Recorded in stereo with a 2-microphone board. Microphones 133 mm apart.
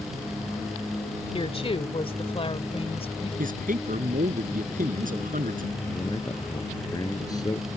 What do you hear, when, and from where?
1.3 s a woman speaking: 45° left (ahead or behind)
3.4 s a man speaking: 80° right
5.9 s a man speaking: 25° left (ahead or behind)